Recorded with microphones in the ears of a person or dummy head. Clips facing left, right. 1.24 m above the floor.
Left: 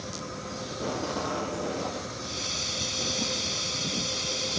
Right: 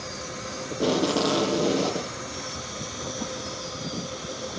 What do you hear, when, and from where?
0.7 s tape being pulled: 40° right (ahead or behind)
2.2 s a hiss: 40° left (ahead or behind)